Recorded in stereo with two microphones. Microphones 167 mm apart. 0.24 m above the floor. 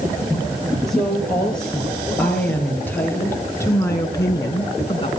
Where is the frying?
I don't hear frying.